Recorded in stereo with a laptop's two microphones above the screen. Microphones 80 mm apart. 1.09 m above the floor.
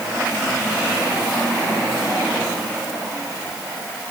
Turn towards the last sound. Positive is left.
No sound to turn to.